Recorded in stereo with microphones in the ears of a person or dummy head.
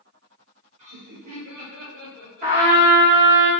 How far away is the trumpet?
About 1.7 m.